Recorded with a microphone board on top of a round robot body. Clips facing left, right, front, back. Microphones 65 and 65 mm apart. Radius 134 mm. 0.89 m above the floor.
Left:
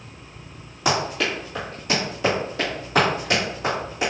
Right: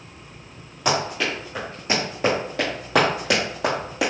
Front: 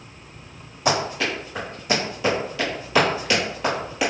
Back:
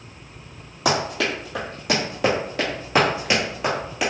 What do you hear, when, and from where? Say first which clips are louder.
0.8 s running footsteps: even, even; straight behind, 1.8 m; by 4.1 s 90° right, 1.5 m